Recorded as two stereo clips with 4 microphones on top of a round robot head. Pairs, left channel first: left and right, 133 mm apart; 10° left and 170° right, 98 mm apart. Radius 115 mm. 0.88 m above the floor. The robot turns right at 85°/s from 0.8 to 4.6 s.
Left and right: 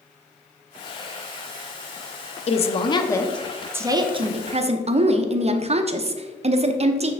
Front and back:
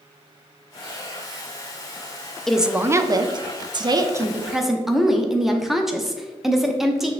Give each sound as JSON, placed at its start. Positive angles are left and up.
{"t": 2.5, "sound": "a woman speaking", "azimuth_deg": 95, "distance_m": 0.7}